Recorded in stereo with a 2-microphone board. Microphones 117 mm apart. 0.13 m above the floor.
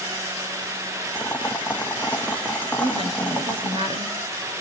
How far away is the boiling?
About 1.0 m.